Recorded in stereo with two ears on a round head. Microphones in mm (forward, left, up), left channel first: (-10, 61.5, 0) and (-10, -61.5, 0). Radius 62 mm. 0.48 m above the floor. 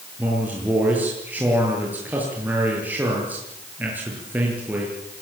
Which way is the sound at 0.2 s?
10° right (ahead or behind).